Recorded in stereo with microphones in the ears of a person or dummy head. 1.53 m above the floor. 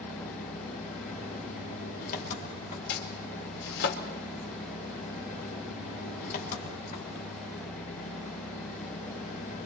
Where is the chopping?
60° left (ahead or behind), 3.5 m.